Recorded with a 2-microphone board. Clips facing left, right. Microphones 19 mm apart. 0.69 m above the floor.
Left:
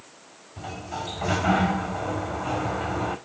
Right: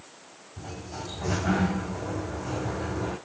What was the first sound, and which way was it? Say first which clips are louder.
A sliding door: left 5 dB; 80° left.